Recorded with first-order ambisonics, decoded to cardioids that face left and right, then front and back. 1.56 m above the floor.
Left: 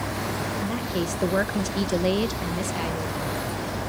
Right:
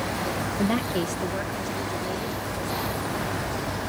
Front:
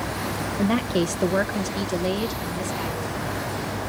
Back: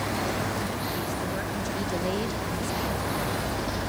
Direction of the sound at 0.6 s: 35° right.